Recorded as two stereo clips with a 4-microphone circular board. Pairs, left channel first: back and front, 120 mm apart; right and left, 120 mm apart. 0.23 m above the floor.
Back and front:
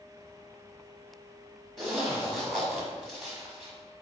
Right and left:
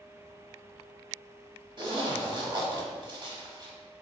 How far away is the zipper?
About 1.1 m.